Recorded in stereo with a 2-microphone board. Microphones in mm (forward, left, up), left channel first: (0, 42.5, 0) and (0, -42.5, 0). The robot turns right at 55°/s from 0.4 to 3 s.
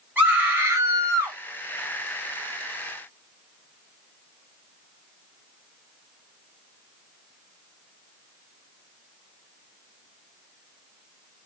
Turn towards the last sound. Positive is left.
turn(degrees=-10)